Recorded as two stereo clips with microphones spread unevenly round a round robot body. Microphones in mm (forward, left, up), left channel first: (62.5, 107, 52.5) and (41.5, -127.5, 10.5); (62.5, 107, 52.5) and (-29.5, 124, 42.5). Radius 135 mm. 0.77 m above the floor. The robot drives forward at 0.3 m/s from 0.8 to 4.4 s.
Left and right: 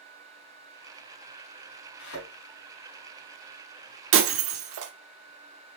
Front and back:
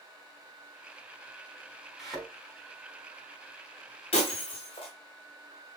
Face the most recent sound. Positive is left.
turn(degrees=-70)